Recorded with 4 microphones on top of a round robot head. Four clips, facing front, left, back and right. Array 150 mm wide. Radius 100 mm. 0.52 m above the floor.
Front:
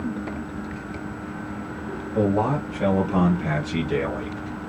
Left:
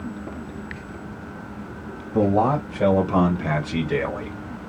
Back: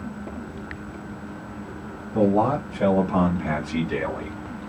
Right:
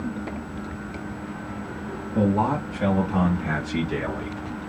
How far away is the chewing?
No chewing in this recording.